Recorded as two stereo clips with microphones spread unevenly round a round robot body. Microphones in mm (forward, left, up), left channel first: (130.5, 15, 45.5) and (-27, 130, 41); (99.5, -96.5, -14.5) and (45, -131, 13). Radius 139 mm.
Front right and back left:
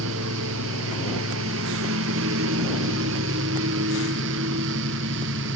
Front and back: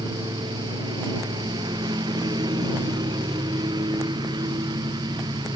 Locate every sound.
0.0 s a lawn mower: 170° left; by 5.6 s 175° right